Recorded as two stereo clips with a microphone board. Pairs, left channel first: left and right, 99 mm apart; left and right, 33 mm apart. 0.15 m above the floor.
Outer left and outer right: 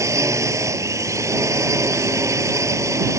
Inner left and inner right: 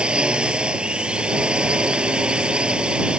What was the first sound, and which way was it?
A drone, 30° right (ahead or behind).